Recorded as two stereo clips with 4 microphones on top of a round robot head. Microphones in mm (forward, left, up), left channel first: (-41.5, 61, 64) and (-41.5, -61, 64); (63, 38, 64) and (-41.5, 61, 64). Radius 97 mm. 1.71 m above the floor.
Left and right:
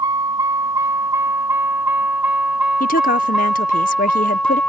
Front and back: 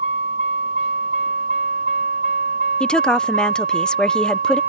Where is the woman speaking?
70° left.